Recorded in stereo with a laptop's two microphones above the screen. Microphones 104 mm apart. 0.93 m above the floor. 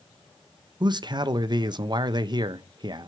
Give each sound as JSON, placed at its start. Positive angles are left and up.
{"t": 0.8, "sound": "a man speaking", "side_deg": -45, "distance_m": 0.6}